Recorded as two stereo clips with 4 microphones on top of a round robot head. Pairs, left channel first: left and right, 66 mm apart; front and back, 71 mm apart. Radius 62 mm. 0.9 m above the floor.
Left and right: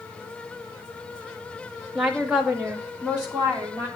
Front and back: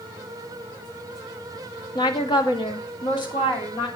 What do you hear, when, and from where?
1.9 s a woman speaking: straight ahead, 1.8 m; by 3.9 s 20° right, 3.5 m